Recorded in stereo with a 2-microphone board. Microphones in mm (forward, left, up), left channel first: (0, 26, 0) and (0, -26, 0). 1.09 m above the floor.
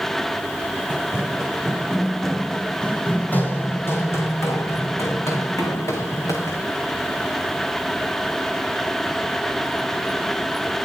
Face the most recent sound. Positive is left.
turn(degrees=80)